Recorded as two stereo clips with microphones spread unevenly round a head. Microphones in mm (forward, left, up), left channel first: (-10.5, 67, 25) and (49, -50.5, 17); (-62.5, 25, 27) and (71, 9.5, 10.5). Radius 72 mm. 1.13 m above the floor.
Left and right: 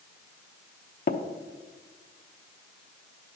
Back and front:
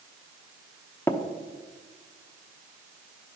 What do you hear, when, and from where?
1.1 s tapping: 100° left, 0.8 m